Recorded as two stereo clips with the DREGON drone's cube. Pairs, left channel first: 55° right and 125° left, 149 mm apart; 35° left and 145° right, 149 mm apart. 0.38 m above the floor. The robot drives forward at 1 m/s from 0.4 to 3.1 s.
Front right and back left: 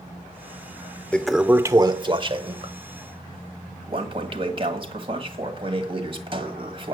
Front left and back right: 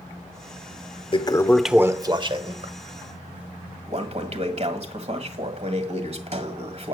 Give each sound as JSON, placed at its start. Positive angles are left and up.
{"t": 1.1, "sound": "a toilet flushing", "azimuth_deg": 20, "distance_m": 0.8}